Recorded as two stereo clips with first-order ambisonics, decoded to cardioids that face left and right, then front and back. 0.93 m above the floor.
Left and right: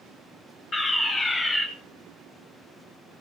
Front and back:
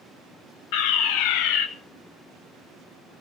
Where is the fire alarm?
15° left, 5 m.